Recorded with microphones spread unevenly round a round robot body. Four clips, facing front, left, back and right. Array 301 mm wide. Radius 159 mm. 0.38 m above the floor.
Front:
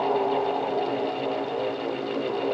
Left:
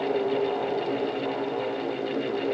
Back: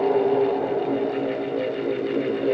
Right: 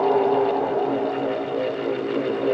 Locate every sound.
Only background noise.